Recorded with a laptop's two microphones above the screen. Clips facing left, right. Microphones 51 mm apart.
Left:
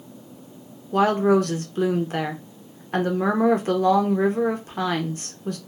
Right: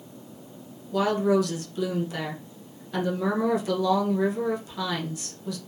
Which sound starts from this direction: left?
A woman speaking, at 0.9 s.